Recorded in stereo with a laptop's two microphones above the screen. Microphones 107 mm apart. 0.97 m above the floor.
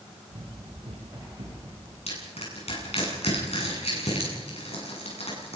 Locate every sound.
0.3 s running footsteps: 60° right (ahead or behind), 6.5 m; by 2.0 s 75° right (ahead or behind), 6.5 m
2.1 s crushing: 70° left (ahead or behind), 8.5 m